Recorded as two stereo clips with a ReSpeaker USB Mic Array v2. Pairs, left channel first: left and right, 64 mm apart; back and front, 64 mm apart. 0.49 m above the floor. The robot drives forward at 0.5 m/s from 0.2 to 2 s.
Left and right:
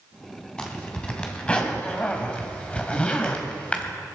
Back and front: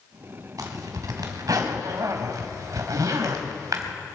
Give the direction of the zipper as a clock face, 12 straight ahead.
12 o'clock.